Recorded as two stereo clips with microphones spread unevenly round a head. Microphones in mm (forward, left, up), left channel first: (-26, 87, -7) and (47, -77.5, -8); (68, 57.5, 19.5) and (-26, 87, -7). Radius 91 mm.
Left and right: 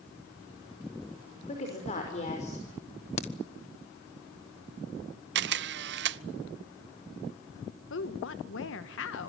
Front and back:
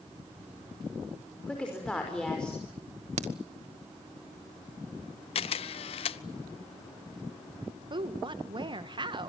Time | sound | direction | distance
1.5 | a woman speaking | 60° left | 5.5 m
3.2 | a crack | 170° left | 1.2 m
5.3 | a camera shutter | 40° right | 0.6 m
7.9 | a woman speaking | 120° left | 1.5 m